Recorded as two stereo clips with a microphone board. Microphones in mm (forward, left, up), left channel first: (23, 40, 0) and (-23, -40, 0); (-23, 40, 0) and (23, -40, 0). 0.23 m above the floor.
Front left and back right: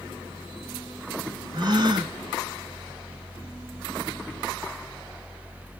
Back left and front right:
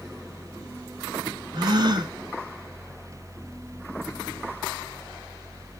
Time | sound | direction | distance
1.5 | a gasp | 90° right | 0.9 m